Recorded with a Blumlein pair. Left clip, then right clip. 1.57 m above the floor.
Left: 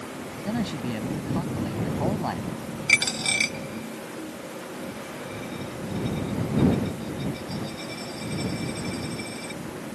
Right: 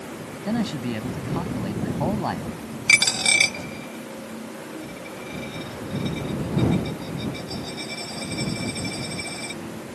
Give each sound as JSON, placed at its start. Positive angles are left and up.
{"t": 0.5, "sound": "a man speaking", "azimuth_deg": -10}
{"t": 2.9, "sound": "a dropped coin", "azimuth_deg": -20}